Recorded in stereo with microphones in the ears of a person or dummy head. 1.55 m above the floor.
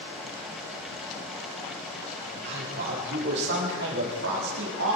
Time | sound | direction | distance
2.2 | a man speaking | 55° right (ahead or behind) | 5 m